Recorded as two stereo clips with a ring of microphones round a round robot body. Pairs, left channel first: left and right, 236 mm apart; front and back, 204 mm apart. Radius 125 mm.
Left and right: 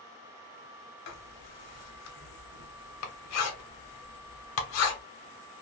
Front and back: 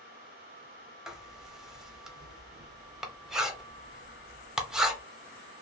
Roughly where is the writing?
Left.